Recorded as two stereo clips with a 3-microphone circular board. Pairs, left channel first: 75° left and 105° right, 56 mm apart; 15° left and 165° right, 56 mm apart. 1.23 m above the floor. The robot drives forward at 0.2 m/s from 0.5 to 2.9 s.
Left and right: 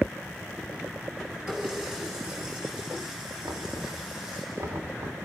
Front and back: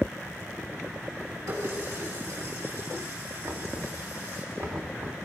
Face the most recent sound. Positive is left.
turn(degrees=-120)